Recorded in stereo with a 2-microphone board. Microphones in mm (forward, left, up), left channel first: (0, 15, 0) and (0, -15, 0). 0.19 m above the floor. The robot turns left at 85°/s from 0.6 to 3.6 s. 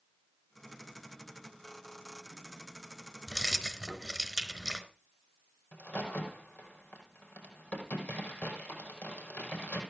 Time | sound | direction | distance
3.3 | keys jangling | 25° left (ahead or behind) | 1.7 m
5.7 | a crack | 65° left (ahead or behind) | 5 m